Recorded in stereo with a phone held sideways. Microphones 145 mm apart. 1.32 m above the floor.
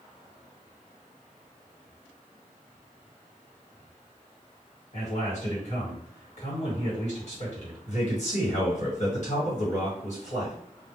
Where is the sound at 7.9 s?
55° left (ahead or behind), 1.5 m.